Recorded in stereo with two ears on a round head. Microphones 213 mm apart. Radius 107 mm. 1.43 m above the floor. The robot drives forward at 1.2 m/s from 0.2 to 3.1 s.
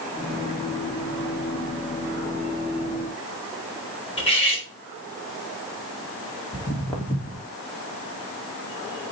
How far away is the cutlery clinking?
About 3.5 m.